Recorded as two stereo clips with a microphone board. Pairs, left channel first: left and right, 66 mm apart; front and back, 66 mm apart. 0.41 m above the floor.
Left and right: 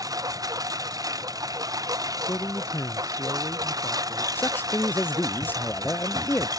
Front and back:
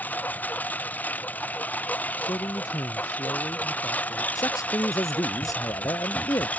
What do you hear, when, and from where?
0.0 s a lawn mower: 65° right
2.2 s a man speaking: 30° left
4.3 s a man speaking: 30° left